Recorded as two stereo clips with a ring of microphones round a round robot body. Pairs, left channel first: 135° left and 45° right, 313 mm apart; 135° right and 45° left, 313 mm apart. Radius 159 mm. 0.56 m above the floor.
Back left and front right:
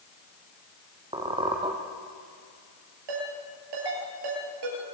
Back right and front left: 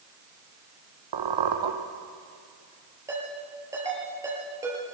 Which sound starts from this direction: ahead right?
A ringtone, at 3.1 s.